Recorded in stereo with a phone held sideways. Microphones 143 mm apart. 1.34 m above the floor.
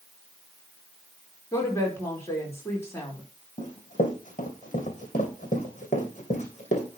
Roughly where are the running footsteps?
Left.